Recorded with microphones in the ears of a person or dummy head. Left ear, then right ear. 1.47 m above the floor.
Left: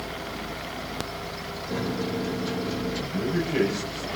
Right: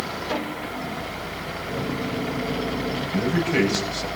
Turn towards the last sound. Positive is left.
turn(degrees=-30)  # may be behind; listen again after turning